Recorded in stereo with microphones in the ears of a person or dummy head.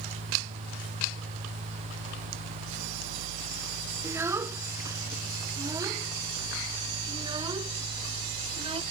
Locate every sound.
4.0 s a child speaking: 15° right (ahead or behind); by 8.8 s 30° right (ahead or behind)